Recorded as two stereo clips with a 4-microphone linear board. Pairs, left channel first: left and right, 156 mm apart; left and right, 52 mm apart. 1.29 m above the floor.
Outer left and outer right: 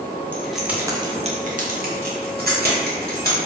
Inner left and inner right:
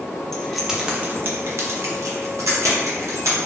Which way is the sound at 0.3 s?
10° left (ahead or behind).